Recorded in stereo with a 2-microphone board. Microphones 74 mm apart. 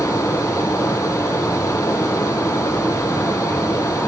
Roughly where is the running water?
Left.